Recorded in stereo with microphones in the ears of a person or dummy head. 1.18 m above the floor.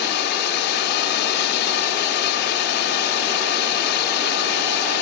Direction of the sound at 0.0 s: 55° left (ahead or behind).